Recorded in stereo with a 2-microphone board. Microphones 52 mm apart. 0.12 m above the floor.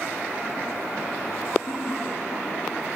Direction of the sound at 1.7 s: 70° left (ahead or behind).